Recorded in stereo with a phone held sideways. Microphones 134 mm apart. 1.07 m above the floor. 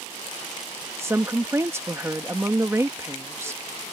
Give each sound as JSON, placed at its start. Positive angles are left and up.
{"t": 1.0, "sound": "a woman speaking", "side_deg": -20}